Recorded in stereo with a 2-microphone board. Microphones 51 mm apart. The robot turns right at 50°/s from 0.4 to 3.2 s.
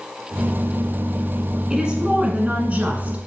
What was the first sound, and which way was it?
A woman speaking, 10° right (ahead or behind).